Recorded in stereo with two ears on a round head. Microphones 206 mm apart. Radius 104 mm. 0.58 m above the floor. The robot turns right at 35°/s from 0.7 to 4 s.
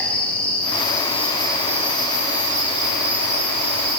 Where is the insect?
175° left, 7.5 m; by 4.0 s 70° right, 7.5 m.